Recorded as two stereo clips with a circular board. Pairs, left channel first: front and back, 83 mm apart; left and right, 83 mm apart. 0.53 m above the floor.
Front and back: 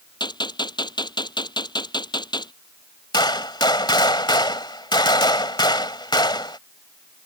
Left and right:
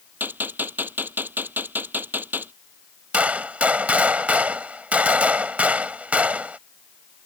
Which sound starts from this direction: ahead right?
A gunshot, at 0.2 s.